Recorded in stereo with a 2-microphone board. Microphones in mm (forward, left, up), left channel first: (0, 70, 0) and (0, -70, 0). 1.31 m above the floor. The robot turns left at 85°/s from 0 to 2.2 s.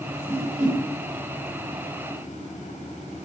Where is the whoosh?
30° right (ahead or behind), 0.8 m; by 0.8 s 65° right (ahead or behind), 0.8 m.